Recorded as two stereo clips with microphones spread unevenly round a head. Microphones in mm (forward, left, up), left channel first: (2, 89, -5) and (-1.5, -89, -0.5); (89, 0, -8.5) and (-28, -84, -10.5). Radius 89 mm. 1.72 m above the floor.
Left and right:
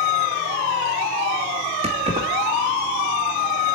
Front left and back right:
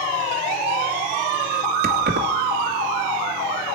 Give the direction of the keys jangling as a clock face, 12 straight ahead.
5 o'clock.